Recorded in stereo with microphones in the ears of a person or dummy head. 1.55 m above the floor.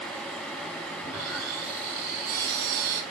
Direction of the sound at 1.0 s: 60° right (ahead or behind).